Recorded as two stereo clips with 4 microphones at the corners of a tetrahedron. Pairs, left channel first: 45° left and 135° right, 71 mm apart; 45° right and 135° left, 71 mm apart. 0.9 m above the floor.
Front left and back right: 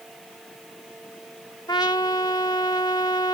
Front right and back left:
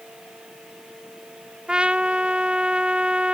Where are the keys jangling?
I don't hear keys jangling.